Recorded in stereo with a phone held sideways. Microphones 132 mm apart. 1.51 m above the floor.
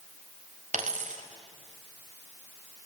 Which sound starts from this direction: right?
A dropped coin, at 0.7 s.